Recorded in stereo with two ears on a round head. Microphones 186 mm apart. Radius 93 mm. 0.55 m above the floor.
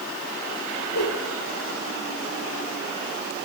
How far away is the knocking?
No knocking in this recording.